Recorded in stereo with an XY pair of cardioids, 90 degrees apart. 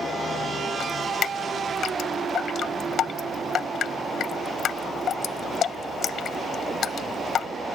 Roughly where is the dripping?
Left.